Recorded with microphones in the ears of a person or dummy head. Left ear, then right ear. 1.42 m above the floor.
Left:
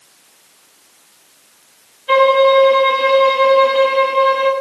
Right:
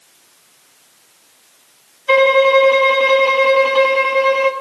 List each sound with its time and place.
2.1 s a violin: 30° right (ahead or behind), 1.4 m